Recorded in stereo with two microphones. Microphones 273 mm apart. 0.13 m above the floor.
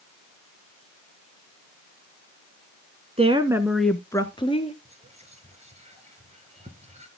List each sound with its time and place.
3.2 s a woman speaking: 25° right (ahead or behind), 1.1 m; by 4.8 s 25° left (ahead or behind), 1.8 m
4.8 s whispering: 25° right (ahead or behind), 2.5 m